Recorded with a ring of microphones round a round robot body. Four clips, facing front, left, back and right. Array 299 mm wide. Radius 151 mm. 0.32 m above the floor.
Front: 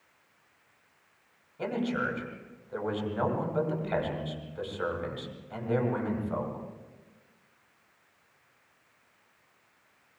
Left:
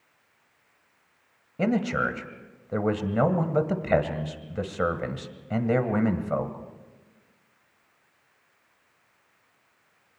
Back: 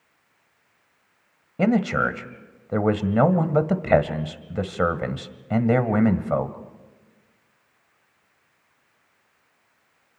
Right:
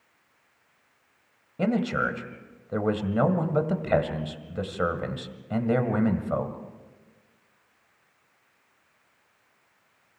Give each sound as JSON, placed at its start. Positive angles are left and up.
{"t": 1.6, "sound": "a man speaking", "azimuth_deg": 175, "distance_m": 1.8}